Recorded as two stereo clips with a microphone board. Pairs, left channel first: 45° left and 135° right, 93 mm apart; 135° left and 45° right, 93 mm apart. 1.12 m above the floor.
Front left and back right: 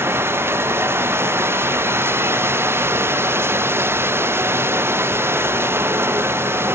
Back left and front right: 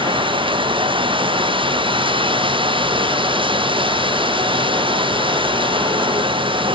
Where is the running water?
70° right.